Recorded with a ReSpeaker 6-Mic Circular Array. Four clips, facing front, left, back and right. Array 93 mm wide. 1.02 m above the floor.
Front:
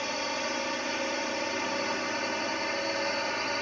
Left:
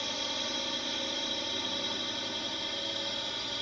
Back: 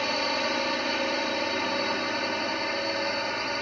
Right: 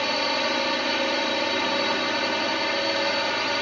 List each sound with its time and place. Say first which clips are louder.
0.0 s a drone: right 13 dB, back 4 dB; 110° right; by 3.6 s 95° right